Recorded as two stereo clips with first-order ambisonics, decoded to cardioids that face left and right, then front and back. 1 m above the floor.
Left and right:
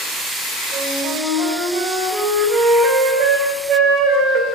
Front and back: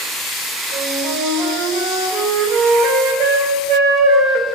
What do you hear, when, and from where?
0.7 s a flute: 145° right, 7 m